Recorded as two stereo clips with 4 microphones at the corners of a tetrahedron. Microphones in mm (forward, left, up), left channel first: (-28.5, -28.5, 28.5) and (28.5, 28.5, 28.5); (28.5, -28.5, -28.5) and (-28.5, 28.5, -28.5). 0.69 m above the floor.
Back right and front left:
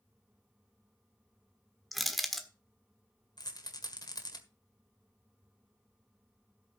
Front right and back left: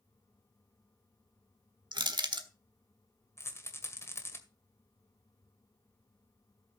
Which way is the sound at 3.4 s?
100° right.